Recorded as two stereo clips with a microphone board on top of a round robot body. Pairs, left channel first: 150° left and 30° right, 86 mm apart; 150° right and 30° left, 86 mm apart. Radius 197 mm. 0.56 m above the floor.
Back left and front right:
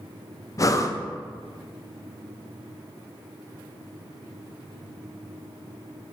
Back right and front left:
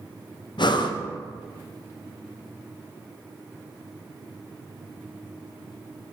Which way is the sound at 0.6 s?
165° right.